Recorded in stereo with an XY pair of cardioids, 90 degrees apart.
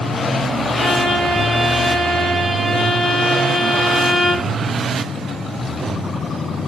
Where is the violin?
20° left, 3.5 m.